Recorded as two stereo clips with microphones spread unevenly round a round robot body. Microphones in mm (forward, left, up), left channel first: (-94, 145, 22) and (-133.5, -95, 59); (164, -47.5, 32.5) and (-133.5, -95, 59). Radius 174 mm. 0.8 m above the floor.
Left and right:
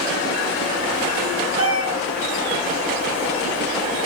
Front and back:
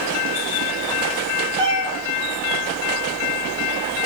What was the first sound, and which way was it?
A cat meowing, 170° right.